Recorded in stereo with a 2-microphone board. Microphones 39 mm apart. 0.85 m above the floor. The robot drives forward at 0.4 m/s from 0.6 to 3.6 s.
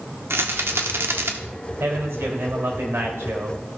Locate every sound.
0.3 s a rattle: 75° right (ahead or behind), 1.3 m; by 1.3 s 85° right, 1.2 m
1.8 s a man speaking: 70° right (ahead or behind), 3.5 m; by 3.6 s 80° right, 3 m